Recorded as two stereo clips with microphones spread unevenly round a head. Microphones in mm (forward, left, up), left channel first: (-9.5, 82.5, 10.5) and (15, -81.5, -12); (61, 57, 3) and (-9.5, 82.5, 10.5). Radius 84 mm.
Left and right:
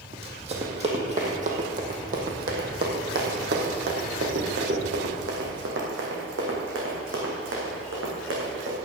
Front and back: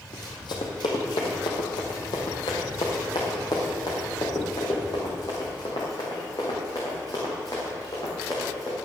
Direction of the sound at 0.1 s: 25° right.